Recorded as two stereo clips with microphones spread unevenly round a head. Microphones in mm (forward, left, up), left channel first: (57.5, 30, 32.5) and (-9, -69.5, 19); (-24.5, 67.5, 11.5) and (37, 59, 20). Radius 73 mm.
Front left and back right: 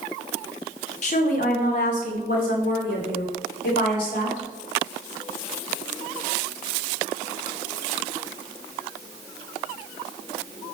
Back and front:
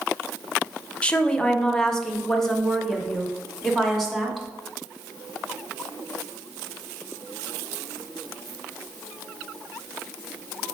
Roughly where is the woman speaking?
Left.